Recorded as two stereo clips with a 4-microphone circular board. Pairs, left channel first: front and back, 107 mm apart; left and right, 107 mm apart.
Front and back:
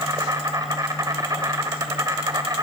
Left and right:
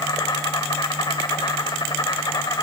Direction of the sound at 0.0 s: 130° left.